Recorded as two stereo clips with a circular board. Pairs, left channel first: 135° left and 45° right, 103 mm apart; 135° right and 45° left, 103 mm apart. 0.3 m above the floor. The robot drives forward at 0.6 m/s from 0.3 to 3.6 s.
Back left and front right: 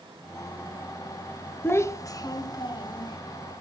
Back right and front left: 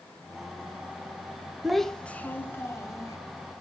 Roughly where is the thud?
No thud in this recording.